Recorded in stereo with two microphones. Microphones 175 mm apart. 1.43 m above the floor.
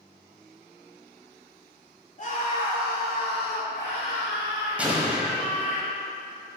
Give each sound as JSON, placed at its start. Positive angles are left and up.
{"t": 2.2, "sound": "a scream", "side_deg": 45, "distance_m": 2.5}
{"t": 4.8, "sound": "an explosion", "side_deg": -10, "distance_m": 1.5}